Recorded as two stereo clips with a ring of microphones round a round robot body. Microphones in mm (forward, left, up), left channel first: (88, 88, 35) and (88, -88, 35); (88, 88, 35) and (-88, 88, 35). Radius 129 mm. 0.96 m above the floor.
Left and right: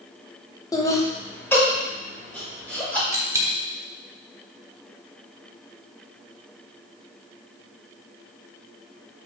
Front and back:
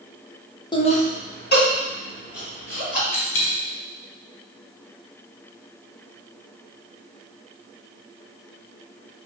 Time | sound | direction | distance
0.7 | laughter | 40° left | 0.9 m
3.1 | a dropped coin | 15° right | 1.1 m